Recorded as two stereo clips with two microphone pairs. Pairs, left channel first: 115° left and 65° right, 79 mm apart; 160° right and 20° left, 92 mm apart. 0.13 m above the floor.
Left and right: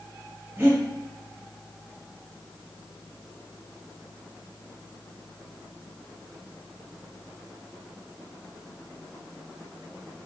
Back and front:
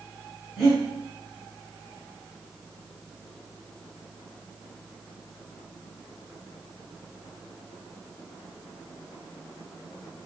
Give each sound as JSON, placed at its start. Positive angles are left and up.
{"t": 0.6, "sound": "breathing", "azimuth_deg": -65, "distance_m": 1.9}